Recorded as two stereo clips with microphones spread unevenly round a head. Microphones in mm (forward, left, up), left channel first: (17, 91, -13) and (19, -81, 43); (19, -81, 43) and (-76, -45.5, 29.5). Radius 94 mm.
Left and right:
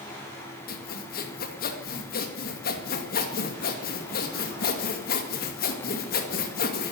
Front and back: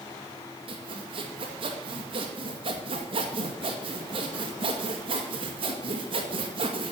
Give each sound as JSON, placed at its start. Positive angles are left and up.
{"t": 0.7, "sound": "sawing", "azimuth_deg": 120, "distance_m": 2.0}